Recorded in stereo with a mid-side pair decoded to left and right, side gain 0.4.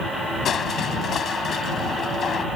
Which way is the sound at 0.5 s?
60° left.